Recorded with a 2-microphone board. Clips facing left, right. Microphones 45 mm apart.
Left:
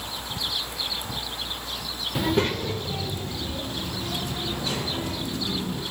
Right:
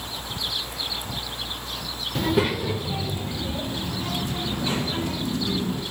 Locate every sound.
2.1 s a child speaking: 5° left (ahead or behind), 0.5 m; by 5.8 s 25° right (ahead or behind), 3.5 m